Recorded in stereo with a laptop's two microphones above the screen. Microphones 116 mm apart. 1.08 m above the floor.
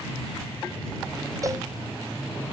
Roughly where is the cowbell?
Right.